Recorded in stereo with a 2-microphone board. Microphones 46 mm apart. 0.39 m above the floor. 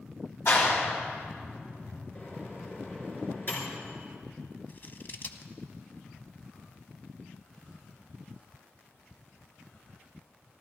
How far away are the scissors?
About 0.8 m.